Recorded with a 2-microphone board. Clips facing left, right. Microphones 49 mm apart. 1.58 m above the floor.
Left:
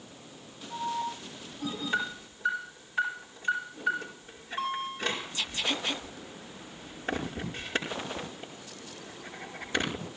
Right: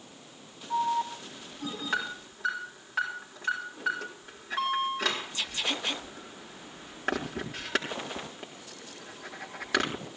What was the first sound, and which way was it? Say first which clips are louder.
An alarm: right 5 dB; 90° right.